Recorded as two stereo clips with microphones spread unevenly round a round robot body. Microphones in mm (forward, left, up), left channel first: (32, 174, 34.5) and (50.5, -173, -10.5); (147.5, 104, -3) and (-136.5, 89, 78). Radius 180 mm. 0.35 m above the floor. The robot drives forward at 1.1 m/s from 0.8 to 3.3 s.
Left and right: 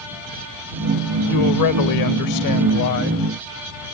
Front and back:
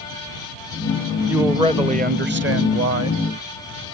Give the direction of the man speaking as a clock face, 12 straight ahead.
9 o'clock.